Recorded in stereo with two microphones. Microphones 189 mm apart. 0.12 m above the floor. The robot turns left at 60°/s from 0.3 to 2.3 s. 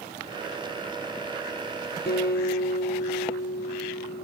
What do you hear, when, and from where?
2.1 s a guitar: 65° left (ahead or behind), 3.5 m; by 4.2 s 60° left (ahead or behind), 3.5 m